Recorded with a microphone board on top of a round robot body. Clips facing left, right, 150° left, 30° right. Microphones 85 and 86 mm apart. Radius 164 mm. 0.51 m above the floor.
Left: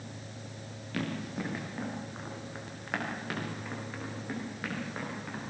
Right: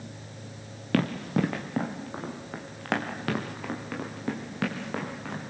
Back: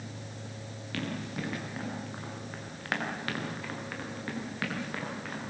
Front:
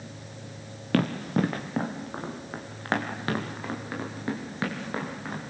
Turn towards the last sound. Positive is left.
turn(degrees=-95)